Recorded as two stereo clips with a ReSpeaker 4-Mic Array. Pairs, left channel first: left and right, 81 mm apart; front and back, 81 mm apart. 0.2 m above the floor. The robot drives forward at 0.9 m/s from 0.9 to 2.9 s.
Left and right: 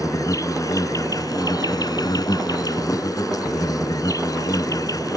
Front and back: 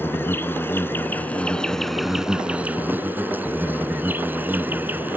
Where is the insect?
55° left; by 5.2 s 120° left.